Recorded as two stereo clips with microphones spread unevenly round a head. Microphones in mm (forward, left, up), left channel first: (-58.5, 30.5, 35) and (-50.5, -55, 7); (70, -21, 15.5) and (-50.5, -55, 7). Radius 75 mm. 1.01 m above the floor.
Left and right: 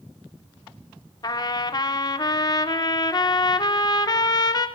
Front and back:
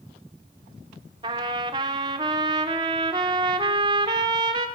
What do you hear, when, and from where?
1.2 s a trumpet: 130° left, 1.6 m